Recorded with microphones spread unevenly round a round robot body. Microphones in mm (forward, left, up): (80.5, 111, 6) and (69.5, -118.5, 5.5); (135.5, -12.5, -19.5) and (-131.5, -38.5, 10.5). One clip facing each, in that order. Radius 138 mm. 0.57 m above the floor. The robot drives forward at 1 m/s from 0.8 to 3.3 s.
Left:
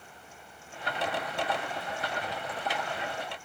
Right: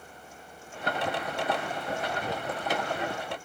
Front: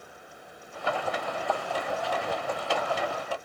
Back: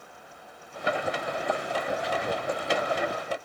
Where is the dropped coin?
I don't hear a dropped coin.